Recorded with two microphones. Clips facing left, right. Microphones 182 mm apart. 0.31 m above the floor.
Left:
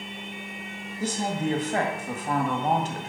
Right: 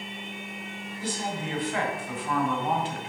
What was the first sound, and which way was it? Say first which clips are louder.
A woman speaking: left 5 dB; 45° left (ahead or behind).